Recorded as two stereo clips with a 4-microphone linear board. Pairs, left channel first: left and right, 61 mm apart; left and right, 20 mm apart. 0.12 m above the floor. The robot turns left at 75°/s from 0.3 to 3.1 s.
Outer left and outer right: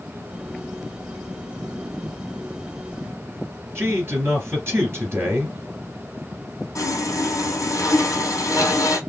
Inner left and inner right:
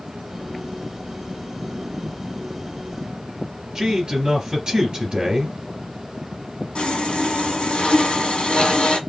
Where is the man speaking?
45° right (ahead or behind), 2.5 m.